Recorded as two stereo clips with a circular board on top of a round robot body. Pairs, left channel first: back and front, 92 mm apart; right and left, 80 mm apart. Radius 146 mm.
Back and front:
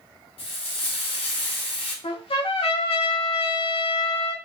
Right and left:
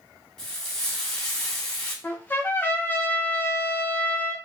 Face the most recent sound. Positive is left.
turn(degrees=-160)